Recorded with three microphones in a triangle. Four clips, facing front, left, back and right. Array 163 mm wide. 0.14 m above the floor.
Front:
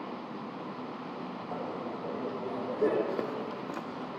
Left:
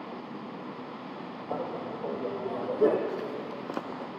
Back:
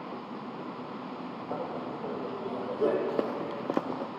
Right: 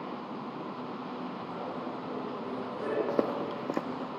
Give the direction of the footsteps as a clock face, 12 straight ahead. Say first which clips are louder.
Right 4 dB, back 3 dB; 4 o'clock.